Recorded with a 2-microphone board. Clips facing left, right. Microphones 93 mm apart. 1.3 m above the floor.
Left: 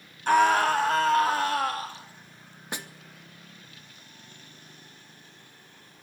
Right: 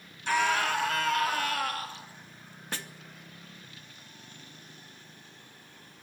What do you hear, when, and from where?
0.3 s a scream: 45° left (ahead or behind), 1.7 m; by 2.0 s 30° left (ahead or behind), 3.5 m
2.7 s a snare drum: 15° left (ahead or behind), 1.1 m